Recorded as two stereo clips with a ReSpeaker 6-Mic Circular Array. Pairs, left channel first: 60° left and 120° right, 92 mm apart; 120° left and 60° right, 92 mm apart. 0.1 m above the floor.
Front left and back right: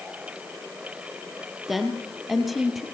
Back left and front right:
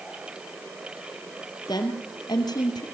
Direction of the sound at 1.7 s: 150° left.